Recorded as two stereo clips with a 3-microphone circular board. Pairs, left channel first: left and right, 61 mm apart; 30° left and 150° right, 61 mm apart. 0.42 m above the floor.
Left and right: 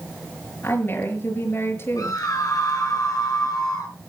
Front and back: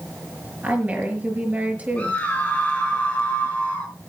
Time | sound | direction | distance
0.6 | a woman speaking | 145° left | 6 m
2.0 | a scream | 90° left | 3 m